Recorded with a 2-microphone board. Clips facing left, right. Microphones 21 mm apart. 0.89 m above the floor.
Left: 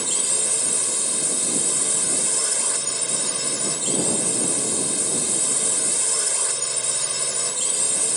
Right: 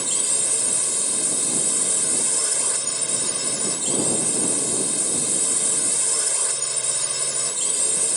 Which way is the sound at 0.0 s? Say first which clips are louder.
Even; 5° left (ahead or behind).